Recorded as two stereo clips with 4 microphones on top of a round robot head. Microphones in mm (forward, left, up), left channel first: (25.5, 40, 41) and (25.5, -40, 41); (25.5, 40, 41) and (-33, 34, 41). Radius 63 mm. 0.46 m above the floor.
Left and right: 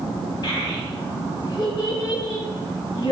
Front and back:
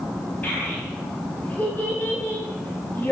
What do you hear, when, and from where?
0.4 s a child speaking: 70° left, 2.0 m